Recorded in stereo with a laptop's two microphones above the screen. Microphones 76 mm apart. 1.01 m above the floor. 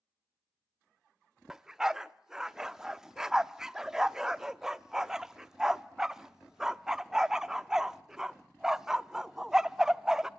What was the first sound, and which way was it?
A dog barking, 5° right (ahead or behind).